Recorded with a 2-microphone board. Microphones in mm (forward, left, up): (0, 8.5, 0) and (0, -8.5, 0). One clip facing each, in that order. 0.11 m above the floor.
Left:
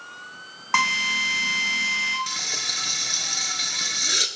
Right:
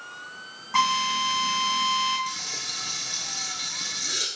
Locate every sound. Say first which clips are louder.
0.7 s a drill: left 2 dB; 60° left (ahead or behind), 3 m
2.3 s frying: left 5 dB; 35° left (ahead or behind), 0.5 m